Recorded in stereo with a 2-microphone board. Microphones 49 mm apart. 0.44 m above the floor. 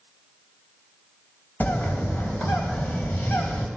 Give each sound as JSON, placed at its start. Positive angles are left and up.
{"t": 1.6, "sound": "a bird", "side_deg": 40, "distance_m": 3.0}